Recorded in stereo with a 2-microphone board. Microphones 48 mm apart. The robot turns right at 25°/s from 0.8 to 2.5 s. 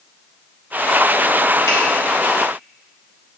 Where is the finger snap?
70° left (ahead or behind), 4 m; by 1.8 s 65° left (ahead or behind), 4 m.